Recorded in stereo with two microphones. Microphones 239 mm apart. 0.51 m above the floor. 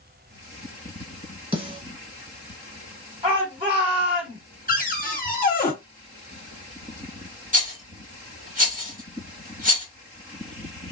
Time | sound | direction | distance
1.5 | a snare drum | 20° right (ahead or behind) | 1.4 m
3.2 | a shout | 20° right (ahead or behind) | 1.7 m
4.7 | a cupboard door | 35° left (ahead or behind) | 0.7 m
7.5 | a rattle | 30° right (ahead or behind) | 1.1 m